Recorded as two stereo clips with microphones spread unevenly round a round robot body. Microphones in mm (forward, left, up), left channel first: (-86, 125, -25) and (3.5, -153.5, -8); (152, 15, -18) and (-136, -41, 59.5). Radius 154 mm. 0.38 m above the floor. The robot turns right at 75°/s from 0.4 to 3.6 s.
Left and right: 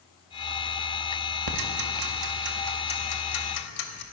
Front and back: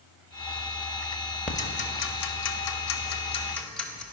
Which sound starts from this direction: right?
Ticking, at 1.5 s.